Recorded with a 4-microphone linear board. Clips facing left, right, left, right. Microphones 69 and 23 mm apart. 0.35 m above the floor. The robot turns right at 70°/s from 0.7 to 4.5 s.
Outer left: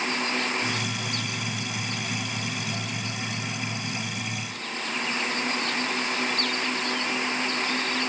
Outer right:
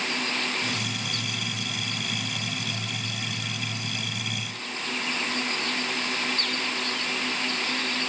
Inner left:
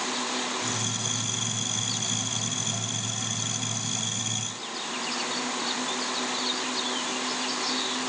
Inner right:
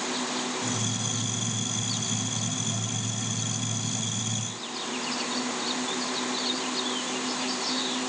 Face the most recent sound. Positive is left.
No sound to turn to.